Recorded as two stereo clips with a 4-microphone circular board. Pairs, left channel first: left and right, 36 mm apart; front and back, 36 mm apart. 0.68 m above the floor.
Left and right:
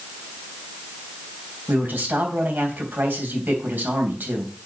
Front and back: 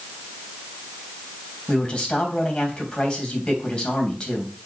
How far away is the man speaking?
About 3.5 m.